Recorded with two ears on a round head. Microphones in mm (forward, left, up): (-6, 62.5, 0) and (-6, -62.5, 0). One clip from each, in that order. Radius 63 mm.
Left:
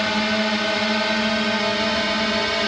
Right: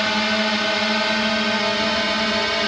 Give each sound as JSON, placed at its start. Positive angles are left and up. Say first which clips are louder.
{"t": 0.0, "sound": "a drone", "louder": "right 1 dB", "side_deg": -20}